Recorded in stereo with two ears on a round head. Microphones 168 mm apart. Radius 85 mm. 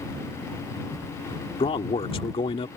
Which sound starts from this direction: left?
A man speaking, at 1.6 s.